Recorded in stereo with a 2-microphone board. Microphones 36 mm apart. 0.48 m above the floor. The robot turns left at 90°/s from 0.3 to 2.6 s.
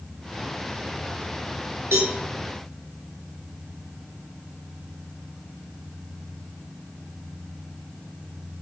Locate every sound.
1.9 s a cowbell: 80° right, 9 m; by 2.1 s 65° right (ahead or behind), 9 m